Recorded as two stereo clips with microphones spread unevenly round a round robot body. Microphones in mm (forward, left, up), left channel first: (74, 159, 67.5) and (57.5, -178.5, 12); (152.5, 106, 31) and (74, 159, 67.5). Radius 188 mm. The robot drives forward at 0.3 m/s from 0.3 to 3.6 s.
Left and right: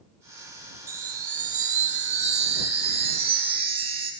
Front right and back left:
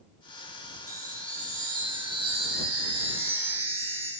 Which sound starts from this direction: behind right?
A chime, at 0.9 s.